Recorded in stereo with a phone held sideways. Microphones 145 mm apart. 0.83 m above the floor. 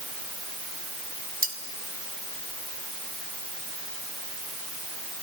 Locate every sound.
1.4 s cutlery clinking: 80° right, 2.5 m